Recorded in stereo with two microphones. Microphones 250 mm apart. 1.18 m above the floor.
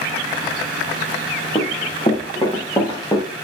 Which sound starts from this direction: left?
Running footsteps, at 1.6 s.